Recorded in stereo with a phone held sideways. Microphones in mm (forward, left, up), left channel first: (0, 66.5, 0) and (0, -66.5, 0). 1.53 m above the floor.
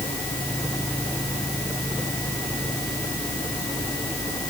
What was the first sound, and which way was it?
Only background noise.